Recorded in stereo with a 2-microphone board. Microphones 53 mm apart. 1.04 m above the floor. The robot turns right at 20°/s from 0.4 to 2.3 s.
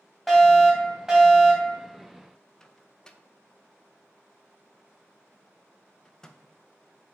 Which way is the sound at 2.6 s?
15° left (ahead or behind).